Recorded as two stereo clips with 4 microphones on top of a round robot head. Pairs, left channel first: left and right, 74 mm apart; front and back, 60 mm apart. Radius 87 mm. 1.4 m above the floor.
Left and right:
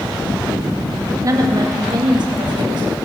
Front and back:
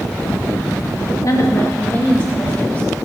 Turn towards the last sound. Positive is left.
turn(degrees=-70)